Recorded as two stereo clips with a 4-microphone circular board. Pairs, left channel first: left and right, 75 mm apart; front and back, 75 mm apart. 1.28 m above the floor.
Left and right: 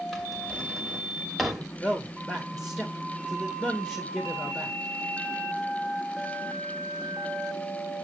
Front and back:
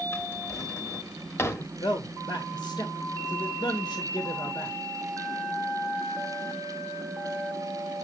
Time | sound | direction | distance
0.1 | a drawer | straight ahead | 1.1 m
1.6 | a man speaking | 25° left | 1.7 m